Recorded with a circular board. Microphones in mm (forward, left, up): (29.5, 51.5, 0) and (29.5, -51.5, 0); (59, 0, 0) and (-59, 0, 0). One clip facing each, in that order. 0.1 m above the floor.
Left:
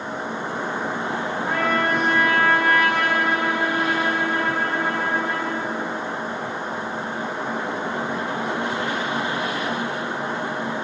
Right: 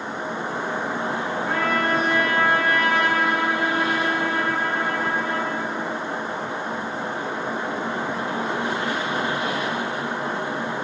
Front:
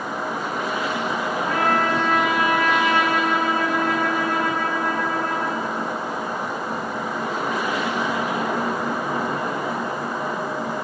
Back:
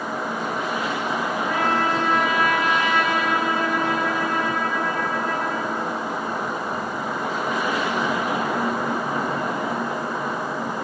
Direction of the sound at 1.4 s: 75° left.